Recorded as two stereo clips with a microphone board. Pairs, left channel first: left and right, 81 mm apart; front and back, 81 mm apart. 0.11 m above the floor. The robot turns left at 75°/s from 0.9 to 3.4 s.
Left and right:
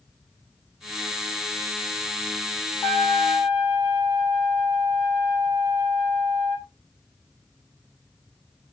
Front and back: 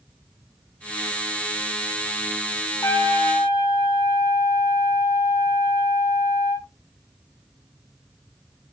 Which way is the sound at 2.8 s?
35° left.